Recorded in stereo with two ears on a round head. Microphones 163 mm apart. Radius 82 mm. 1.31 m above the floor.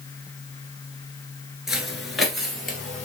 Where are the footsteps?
Centre (ahead or behind), 1.3 m.